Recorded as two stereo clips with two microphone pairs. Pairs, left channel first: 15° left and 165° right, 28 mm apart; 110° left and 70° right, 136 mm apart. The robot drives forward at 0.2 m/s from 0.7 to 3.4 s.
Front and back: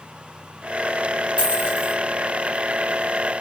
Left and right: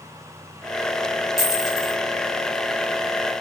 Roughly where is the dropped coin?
Behind.